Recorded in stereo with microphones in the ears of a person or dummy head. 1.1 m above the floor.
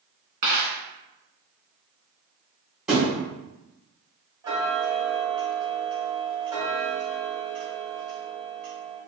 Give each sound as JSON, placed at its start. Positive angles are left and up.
{"t": 0.4, "sound": "a dropped coin", "side_deg": -25, "distance_m": 1.2}
{"t": 2.9, "sound": "a thud", "side_deg": -5, "distance_m": 1.1}
{"t": 4.4, "sound": "ticking", "side_deg": -10, "distance_m": 1.2}